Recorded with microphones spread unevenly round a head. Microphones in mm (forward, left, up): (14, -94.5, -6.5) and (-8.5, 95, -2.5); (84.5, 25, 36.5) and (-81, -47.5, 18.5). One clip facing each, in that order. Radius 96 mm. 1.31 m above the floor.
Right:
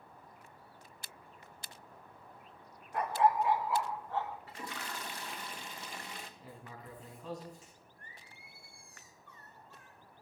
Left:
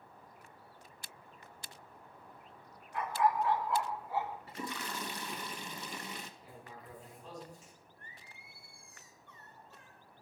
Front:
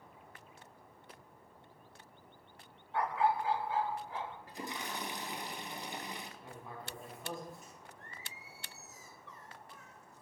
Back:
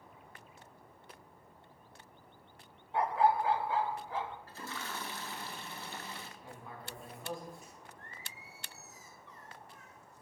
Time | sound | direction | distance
2.9 | a dog barking | 90° right | 0.9 m
4.5 | a toilet flushing | 100° left | 0.9 m
6.4 | writing | 65° right | 4 m
8.0 | singing | 30° left | 3.5 m